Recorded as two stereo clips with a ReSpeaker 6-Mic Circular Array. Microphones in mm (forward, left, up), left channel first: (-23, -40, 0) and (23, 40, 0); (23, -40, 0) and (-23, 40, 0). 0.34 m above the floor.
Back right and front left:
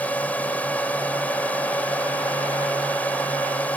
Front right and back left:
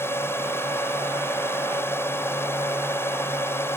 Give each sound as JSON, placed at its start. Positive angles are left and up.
{"t": 0.0, "sound": "a drone", "azimuth_deg": -70}